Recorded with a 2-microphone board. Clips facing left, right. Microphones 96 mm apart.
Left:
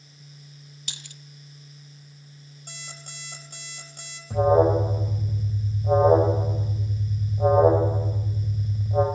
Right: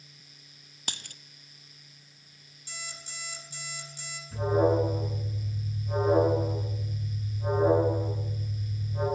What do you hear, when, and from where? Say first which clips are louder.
0.9 s a dropped coin: right 5 dB; 55° right (ahead or behind), 0.5 m
2.7 s an alarm clock: even; 55° left (ahead or behind), 3 m
4.3 s an alarm: left 6 dB; 75° left (ahead or behind), 4.5 m